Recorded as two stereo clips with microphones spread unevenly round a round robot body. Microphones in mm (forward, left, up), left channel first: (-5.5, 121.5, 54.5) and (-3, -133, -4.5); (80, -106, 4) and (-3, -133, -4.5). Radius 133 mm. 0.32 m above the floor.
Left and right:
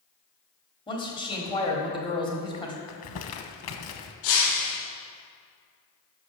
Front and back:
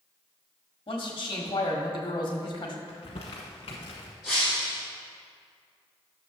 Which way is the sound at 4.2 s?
95° left.